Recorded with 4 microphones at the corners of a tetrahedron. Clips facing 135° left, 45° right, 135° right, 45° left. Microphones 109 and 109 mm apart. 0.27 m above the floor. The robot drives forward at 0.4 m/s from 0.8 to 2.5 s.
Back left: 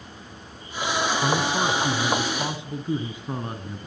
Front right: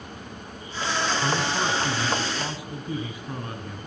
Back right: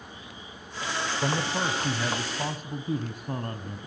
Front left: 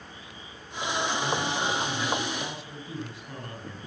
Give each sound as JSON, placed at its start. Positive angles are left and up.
{"t": 1.2, "sound": "a man speaking", "azimuth_deg": -155, "distance_m": 1.7}